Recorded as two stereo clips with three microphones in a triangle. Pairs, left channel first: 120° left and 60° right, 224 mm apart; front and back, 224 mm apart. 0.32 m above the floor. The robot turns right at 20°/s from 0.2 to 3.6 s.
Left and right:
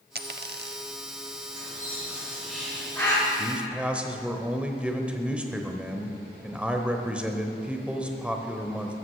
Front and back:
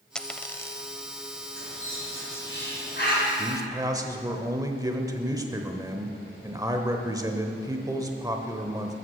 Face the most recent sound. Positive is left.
turn(degrees=-135)